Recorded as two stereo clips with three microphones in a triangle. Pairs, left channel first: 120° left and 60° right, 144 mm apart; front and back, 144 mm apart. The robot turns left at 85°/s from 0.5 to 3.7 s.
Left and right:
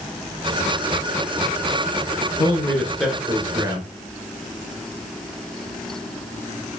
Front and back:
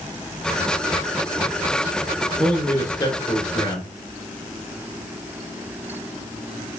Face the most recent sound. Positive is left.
turn(degrees=-25)